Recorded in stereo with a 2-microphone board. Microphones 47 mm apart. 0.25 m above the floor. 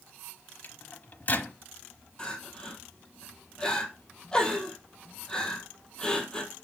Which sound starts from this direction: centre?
Crying, at 2.2 s.